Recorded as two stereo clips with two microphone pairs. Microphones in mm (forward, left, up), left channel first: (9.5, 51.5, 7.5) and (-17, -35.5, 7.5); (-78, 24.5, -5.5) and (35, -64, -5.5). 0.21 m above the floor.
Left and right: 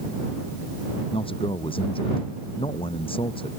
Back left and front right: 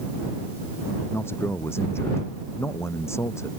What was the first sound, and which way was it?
A man speaking, 70° left.